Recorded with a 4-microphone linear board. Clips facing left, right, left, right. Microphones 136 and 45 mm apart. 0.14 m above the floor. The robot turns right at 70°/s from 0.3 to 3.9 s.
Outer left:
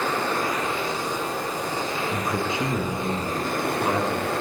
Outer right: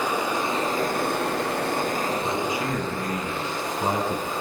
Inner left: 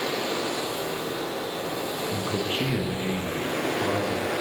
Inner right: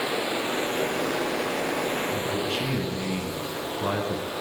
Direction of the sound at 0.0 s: 165° right.